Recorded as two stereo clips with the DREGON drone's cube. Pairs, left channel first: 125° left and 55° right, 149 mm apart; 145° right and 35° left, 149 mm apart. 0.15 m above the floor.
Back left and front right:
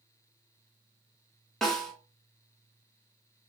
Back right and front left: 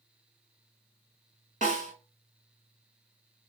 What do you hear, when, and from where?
1.6 s a snare drum: 40° left, 1.4 m